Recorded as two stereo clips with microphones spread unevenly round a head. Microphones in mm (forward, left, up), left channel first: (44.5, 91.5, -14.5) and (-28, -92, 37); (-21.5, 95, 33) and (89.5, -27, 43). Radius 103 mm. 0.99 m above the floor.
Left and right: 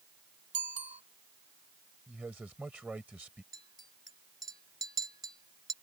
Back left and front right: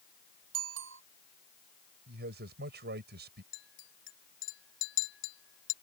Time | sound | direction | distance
0.5 | a bicycle bell | 55° right | ?
2.1 | a man speaking | 30° right | ?
3.5 | a clink | 160° left | ?